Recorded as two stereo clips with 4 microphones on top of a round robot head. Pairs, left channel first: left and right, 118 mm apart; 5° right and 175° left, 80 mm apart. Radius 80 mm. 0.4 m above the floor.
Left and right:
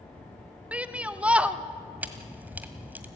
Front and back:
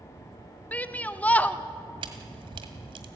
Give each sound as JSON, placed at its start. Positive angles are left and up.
{"t": 0.7, "sound": "a shout", "azimuth_deg": -30, "distance_m": 0.8}
{"t": 2.0, "sound": "a camera shutter", "azimuth_deg": -165, "distance_m": 1.6}